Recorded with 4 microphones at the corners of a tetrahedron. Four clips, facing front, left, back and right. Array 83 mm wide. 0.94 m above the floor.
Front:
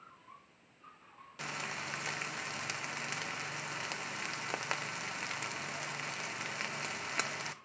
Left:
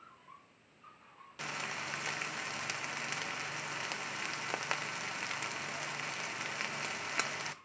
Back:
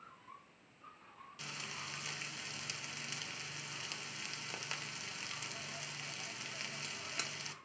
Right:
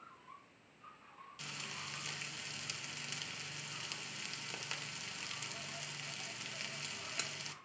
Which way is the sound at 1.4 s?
50° left.